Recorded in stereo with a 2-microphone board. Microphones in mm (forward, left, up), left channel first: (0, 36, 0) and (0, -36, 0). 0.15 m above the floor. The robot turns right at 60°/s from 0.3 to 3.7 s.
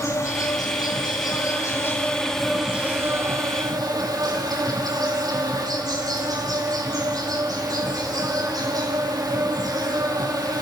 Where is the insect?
50° left, 4.5 m; by 10.6 s 105° right, 4.5 m.